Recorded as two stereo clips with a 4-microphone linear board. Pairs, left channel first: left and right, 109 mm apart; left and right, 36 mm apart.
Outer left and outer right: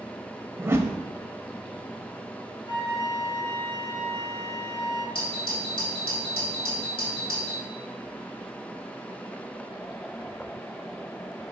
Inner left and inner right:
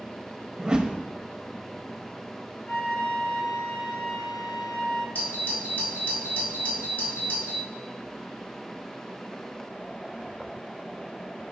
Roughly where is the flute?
Left.